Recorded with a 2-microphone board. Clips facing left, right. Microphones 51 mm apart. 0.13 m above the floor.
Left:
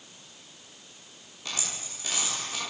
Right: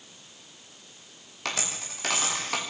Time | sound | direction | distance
1.4 | a dropped coin | 90° right | 7.5 m